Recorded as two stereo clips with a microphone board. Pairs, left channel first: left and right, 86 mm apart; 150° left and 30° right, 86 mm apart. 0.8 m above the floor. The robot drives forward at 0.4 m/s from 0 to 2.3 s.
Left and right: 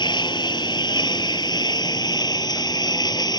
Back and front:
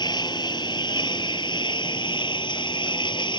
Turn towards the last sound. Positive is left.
turn(degrees=125)